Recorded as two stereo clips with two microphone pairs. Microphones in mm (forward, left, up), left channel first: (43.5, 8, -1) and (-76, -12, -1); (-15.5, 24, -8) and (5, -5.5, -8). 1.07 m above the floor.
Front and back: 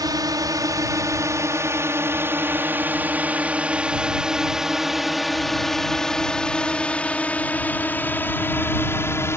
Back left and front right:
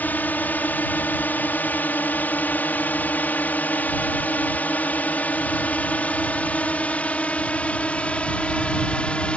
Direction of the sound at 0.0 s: 140° left.